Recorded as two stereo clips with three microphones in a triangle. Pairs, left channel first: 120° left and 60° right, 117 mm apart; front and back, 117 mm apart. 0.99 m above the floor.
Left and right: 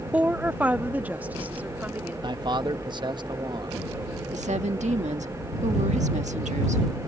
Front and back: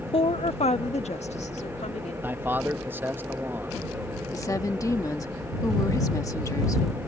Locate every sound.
0.1 s a woman speaking: 15° left
2.2 s a man speaking: 110° right
4.3 s a woman speaking: 60° right